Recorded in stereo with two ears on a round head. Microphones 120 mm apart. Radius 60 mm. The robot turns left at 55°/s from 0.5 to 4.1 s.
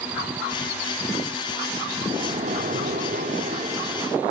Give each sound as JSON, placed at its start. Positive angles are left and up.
{"t": 2.0, "sound": "a splash", "azimuth_deg": -40, "distance_m": 1.9}